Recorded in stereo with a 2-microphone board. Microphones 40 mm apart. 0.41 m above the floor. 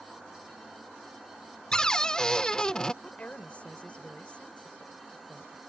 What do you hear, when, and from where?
1.7 s a cupboard door: 20° left (ahead or behind)
3.0 s a woman speaking: 40° left (ahead or behind)